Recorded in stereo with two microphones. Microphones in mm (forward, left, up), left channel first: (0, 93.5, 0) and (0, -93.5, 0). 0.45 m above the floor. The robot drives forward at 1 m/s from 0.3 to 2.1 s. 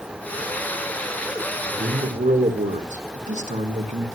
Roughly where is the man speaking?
Right.